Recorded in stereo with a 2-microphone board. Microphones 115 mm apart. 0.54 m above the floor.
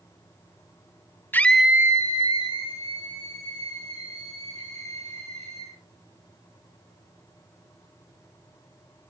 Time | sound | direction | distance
1.3 | a scream | 20° left (ahead or behind) | 0.9 m